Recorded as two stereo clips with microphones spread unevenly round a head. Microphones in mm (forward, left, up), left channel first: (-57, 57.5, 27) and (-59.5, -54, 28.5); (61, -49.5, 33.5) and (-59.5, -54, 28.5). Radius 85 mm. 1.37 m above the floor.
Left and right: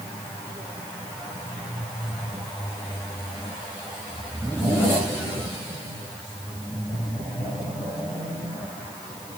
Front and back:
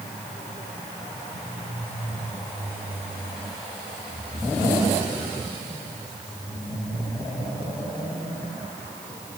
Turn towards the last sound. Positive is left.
No sound to turn to.